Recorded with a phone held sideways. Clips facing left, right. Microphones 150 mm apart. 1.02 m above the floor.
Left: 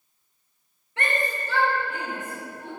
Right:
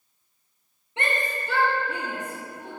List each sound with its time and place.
1.0 s a shout: 20° right (ahead or behind), 1.0 m; by 2.7 s 70° right (ahead or behind), 2.5 m